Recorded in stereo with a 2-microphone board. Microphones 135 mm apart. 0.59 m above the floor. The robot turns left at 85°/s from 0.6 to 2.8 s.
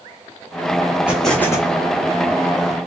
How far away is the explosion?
About 1.7 m.